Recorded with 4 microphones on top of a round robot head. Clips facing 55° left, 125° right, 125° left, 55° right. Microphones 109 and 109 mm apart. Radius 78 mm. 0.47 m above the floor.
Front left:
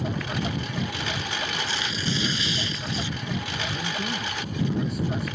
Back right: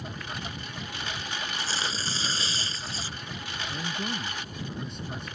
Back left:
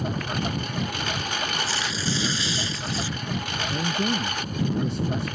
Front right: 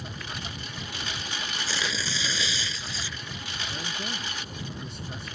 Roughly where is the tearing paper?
Ahead right.